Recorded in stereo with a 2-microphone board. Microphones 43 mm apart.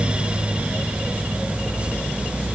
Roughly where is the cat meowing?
I don't hear a cat meowing.